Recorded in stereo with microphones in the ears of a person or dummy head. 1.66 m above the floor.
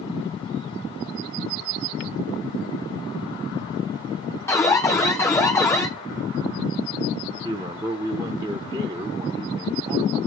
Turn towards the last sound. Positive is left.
turn(degrees=-15)  # may be behind; listen again after turning